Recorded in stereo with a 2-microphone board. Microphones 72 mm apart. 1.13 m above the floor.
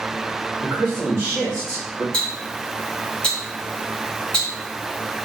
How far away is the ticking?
About 1.4 m.